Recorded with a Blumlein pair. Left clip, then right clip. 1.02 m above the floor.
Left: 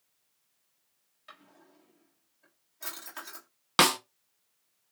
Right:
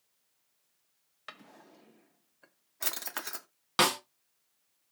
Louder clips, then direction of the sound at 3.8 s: Left 3 dB; 20° left.